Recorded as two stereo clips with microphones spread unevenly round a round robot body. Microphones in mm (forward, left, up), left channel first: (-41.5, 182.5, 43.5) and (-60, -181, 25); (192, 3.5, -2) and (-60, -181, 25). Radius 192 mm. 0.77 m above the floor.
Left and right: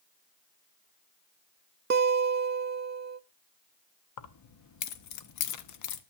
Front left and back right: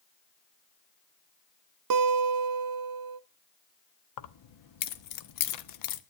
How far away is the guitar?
About 0.6 m.